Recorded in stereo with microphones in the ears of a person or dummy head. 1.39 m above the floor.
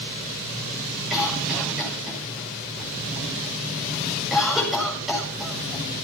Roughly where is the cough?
Centre.